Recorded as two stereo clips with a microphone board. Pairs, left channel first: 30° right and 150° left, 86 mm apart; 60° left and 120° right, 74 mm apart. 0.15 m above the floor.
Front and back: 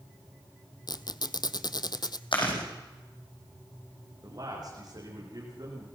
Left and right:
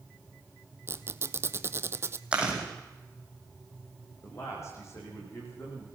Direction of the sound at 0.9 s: 65° right.